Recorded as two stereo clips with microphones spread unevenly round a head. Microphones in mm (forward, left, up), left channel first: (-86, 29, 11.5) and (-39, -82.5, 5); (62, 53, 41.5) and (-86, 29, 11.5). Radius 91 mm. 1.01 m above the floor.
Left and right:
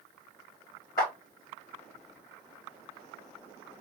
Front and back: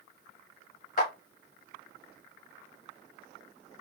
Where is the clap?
45° left, 1.3 m.